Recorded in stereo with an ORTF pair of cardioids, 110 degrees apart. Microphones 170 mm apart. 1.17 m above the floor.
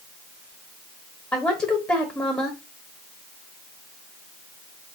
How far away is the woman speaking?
About 1.0 m.